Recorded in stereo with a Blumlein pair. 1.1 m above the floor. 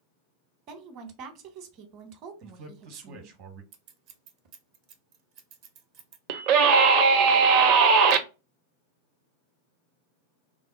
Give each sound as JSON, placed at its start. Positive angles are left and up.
{"t": 0.7, "sound": "a woman speaking", "azimuth_deg": -40, "distance_m": 0.9}
{"t": 2.4, "sound": "a man speaking", "azimuth_deg": -45, "distance_m": 0.9}
{"t": 3.7, "sound": "scissors", "azimuth_deg": -40, "distance_m": 0.7}
{"t": 6.3, "sound": "a scream", "azimuth_deg": -45, "distance_m": 0.7}